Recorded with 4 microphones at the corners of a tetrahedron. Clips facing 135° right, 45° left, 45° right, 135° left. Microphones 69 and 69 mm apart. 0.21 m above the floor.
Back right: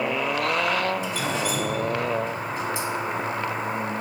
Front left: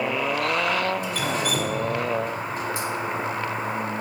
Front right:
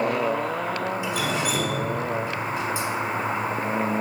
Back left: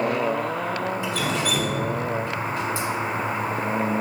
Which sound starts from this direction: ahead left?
Dripping, at 1.0 s.